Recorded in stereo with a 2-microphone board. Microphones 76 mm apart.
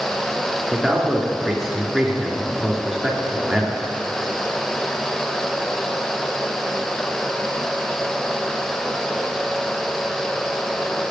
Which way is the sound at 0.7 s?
5° right (ahead or behind).